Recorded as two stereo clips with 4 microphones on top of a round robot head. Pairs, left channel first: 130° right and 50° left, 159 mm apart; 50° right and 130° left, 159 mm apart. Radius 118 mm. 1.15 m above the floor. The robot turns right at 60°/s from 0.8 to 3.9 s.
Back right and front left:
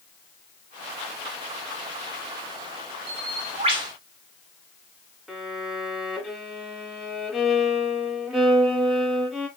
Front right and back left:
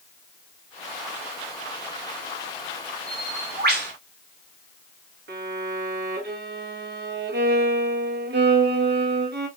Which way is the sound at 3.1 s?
70° left.